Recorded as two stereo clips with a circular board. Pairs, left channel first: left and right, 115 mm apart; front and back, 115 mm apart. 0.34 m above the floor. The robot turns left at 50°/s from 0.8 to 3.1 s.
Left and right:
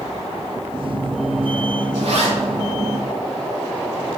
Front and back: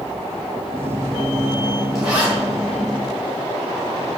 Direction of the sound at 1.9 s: 90° right.